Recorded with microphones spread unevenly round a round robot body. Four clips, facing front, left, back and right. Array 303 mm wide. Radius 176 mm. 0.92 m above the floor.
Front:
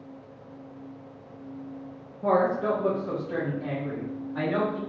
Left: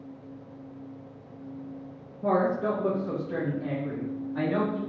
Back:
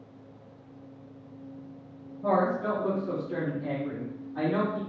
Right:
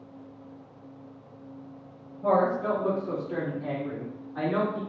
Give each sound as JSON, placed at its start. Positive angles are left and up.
{"t": 2.2, "sound": "a woman speaking", "azimuth_deg": 30, "distance_m": 0.7}